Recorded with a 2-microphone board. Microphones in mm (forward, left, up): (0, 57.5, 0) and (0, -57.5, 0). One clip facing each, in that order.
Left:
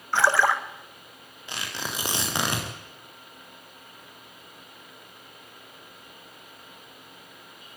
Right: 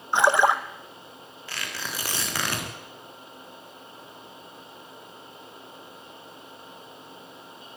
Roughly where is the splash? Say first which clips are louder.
Right 2 dB; centre.